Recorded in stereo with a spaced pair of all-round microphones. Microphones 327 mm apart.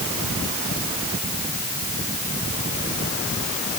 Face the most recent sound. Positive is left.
No sound to turn to.